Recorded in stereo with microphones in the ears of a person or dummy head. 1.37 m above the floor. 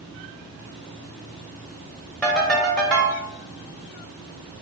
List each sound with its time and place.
2.2 s a ringtone: centre (ahead or behind), 0.8 m